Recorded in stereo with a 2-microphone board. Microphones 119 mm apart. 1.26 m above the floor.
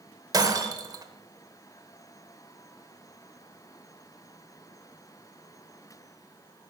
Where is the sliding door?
No sliding door in this recording.